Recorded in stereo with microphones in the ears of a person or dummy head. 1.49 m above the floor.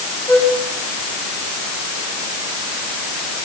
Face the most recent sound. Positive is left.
turn(degrees=10)  # may be behind; listen again after turning